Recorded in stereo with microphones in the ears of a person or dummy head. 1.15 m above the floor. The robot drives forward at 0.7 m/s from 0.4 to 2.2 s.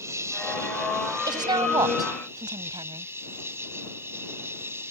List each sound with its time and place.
0.0 s an insect: 5° right (ahead or behind)
1.3 s a woman speaking: 15° right (ahead or behind)